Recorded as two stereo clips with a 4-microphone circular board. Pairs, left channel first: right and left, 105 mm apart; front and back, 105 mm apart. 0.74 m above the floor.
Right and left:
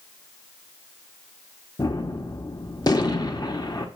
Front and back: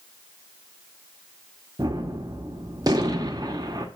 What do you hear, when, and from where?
1.8 s a gunshot: 135° right, 1.1 m